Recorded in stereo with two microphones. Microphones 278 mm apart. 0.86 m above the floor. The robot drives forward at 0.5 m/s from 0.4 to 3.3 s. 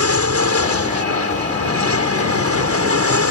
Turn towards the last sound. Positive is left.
turn(degrees=-55)  # may be behind; listen again after turning